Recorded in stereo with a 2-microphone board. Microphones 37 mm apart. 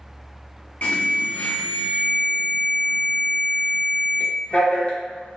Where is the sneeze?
No sneeze in this recording.